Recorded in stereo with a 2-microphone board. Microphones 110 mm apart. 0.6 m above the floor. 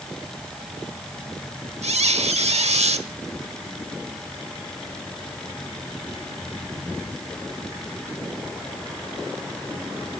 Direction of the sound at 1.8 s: 75° right (ahead or behind).